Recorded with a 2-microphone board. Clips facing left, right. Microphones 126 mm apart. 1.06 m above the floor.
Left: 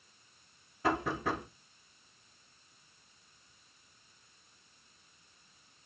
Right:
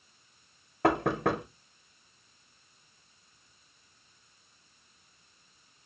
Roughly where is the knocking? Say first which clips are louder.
Right 6 dB; right.